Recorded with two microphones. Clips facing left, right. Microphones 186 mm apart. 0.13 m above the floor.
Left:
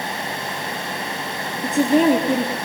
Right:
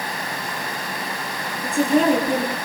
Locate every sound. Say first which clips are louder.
1.6 s a woman speaking: left 2 dB; 20° left (ahead or behind), 1.4 m